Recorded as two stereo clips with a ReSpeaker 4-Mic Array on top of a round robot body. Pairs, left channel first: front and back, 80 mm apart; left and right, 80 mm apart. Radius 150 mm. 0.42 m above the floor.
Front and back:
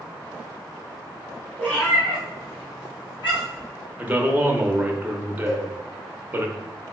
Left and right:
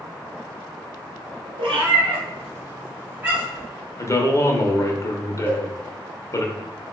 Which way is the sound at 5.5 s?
30° right.